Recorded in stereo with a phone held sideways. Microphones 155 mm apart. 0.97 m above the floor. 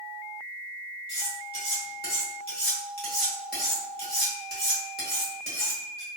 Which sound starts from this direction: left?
Cutlery clinking, at 1.1 s.